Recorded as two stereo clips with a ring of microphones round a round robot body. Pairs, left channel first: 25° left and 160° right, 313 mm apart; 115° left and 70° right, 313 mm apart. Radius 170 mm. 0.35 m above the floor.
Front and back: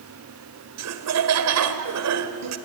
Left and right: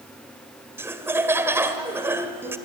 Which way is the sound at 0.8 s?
150° right.